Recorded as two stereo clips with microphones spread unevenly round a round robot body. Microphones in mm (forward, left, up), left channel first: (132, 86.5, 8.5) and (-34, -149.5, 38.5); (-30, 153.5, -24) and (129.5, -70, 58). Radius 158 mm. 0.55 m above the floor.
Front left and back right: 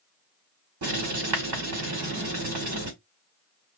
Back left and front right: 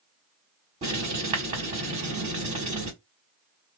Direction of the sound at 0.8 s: 135° right.